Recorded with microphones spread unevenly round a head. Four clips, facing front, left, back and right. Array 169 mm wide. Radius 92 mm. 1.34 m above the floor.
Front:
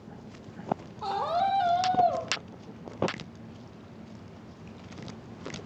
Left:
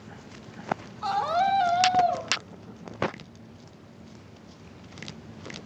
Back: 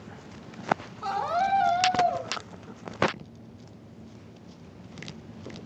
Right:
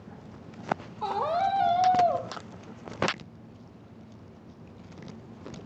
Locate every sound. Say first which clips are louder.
1.0 s a scream: left 3 dB, front 1 dB; 75° right, 5.5 m